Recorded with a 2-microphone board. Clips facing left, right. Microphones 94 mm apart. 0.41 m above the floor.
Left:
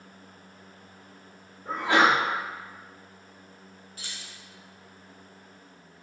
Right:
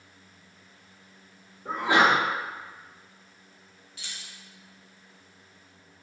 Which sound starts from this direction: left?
Keys jangling, at 4.0 s.